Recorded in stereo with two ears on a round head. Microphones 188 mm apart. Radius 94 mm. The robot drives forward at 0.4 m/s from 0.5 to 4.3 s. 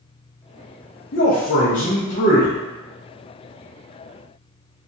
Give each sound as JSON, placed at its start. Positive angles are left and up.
{"t": 1.1, "sound": "a man speaking", "side_deg": 45, "distance_m": 0.6}